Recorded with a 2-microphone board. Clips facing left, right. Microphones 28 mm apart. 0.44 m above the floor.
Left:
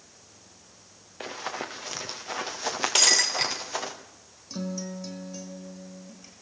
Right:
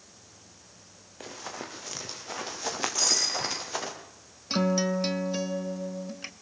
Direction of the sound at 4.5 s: 65° right (ahead or behind).